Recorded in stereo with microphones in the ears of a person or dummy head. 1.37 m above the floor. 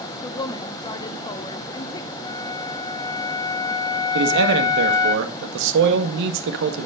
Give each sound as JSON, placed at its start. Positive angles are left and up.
{"t": 0.2, "sound": "a woman speaking", "side_deg": 25, "distance_m": 0.6}
{"t": 2.2, "sound": "a flute", "side_deg": 20, "distance_m": 1.1}
{"t": 4.2, "sound": "a man speaking", "side_deg": -70, "distance_m": 1.6}